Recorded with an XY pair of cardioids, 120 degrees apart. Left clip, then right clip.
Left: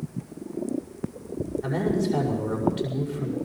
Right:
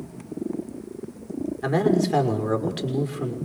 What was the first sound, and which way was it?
A man speaking, 70° right.